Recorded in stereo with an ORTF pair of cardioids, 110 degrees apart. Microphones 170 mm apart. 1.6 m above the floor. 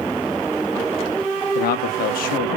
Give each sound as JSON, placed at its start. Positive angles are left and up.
{"t": 1.6, "sound": "a man speaking", "azimuth_deg": 60, "distance_m": 0.9}